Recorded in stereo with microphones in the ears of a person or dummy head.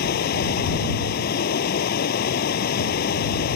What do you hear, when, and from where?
0.0 s running water: 55° left (ahead or behind)